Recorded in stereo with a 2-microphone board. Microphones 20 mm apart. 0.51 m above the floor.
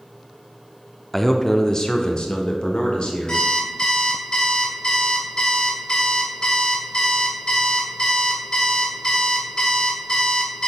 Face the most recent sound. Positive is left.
turn(degrees=50)  # may be behind; listen again after turning